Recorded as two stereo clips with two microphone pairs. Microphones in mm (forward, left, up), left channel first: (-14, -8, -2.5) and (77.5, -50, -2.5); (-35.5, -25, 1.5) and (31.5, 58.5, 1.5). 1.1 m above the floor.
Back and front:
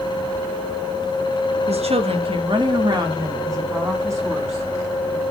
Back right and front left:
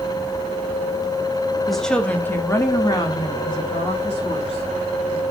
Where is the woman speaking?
40° right, 1.4 m; by 5.2 s 95° right, 3.5 m.